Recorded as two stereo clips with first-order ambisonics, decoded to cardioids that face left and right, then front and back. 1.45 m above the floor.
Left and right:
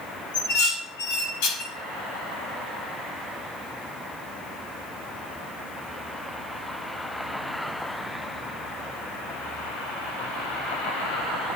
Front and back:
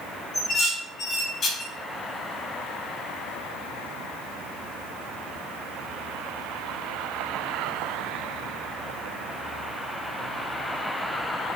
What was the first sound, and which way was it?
Dishes clattering, 70° left.